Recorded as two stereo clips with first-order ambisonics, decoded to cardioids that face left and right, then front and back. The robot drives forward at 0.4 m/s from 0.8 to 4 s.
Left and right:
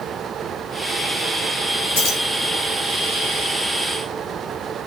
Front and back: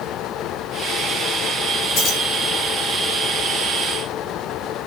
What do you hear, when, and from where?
1.9 s keys jangling: 55° left, 3.5 m; by 2.2 s 60° left, 3.5 m